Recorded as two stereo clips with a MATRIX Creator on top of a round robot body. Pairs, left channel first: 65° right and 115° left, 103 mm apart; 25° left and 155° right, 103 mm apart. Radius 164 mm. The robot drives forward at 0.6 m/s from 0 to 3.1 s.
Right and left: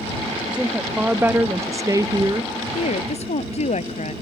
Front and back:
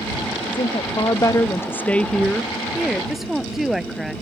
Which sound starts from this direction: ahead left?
A woman speaking, at 0.5 s.